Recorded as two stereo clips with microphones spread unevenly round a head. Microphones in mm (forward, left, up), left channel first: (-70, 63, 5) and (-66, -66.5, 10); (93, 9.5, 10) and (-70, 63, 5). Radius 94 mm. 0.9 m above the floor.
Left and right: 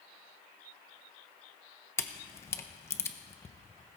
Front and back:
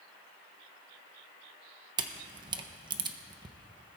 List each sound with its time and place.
2.0 s a camera shutter: 135° left, 0.8 m